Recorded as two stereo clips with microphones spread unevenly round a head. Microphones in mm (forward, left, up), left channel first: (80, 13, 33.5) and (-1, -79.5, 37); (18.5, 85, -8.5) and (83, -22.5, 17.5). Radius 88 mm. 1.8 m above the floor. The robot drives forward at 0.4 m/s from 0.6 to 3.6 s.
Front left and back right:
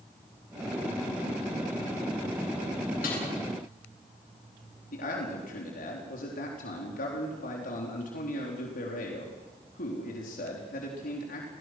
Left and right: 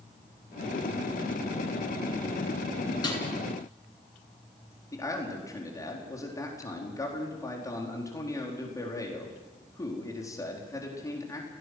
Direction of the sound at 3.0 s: 65° left.